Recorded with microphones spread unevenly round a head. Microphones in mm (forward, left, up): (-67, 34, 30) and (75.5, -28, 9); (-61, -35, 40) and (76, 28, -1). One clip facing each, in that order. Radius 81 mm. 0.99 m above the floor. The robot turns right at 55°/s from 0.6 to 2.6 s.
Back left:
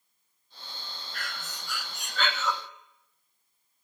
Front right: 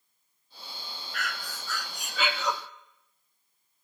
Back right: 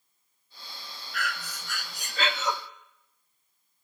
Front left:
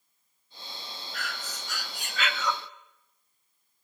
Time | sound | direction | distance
1.1 | breathing | 155° right | 0.9 m